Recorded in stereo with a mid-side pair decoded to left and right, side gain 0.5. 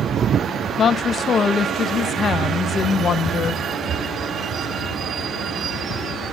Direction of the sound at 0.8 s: 40° left.